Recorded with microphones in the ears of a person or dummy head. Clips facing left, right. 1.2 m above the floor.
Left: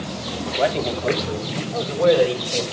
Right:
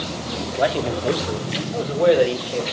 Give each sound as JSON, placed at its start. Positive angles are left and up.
{"t": 0.6, "sound": "a man speaking", "side_deg": -10, "distance_m": 2.0}